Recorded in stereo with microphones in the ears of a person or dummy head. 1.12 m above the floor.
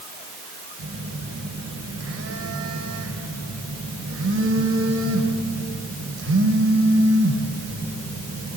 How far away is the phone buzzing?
About 2.5 m.